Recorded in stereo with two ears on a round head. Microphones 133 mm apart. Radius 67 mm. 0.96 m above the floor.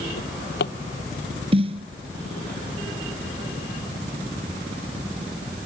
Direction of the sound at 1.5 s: 40° right (ahead or behind).